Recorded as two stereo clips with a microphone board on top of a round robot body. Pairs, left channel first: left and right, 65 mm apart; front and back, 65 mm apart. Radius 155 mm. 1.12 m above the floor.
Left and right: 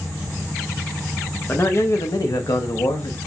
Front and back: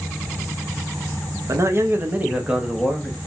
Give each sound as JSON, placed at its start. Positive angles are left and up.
{"t": 1.5, "sound": "a man speaking", "azimuth_deg": 145, "distance_m": 0.7}